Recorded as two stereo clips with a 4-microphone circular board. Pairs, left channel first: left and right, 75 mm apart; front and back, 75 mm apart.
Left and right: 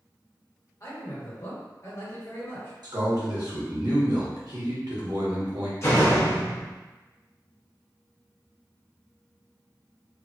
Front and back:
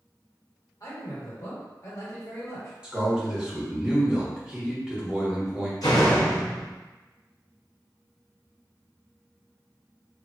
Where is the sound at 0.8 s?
40° left, 1.4 m.